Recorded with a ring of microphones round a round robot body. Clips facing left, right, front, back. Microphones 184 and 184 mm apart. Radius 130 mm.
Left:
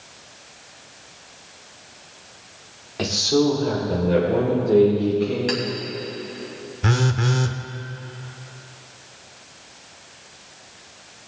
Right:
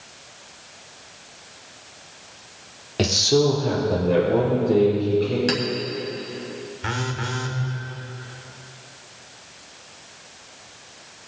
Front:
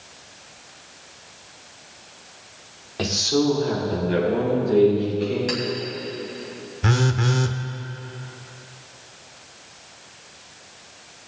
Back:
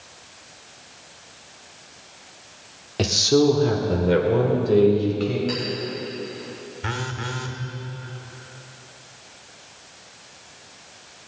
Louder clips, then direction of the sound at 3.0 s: Even, back 3 dB; 130° right.